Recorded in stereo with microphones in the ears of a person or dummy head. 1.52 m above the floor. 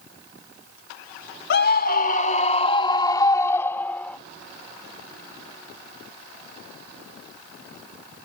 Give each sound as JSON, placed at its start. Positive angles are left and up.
{"t": 1.5, "sound": "a scream", "side_deg": 60}